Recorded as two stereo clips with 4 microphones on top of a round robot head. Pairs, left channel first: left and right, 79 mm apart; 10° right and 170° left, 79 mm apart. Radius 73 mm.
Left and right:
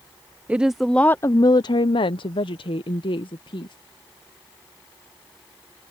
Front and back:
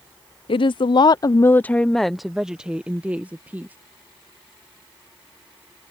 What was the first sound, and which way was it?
A woman speaking, 15° right.